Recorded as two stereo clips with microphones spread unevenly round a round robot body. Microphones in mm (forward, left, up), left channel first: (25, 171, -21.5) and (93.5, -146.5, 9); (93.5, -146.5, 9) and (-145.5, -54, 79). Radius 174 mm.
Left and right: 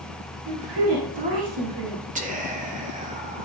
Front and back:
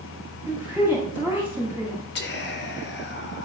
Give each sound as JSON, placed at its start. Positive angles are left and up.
{"t": 0.5, "sound": "a woman speaking", "azimuth_deg": -115, "distance_m": 2.0}
{"t": 2.1, "sound": "whispering", "azimuth_deg": -10, "distance_m": 1.4}